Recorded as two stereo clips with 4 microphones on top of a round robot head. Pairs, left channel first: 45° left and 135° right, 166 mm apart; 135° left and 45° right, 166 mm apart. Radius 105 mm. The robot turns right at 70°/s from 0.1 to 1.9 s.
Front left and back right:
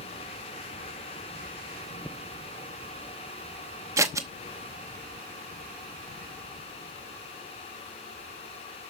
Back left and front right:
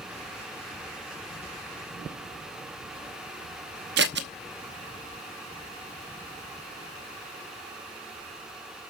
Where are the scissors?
65° right, 0.7 m.